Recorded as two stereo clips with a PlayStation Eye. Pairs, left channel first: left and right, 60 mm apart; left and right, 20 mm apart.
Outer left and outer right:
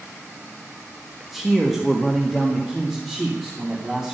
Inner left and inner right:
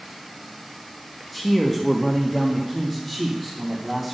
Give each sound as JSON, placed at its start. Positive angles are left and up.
{"t": 1.3, "sound": "a man speaking", "side_deg": 0, "distance_m": 1.4}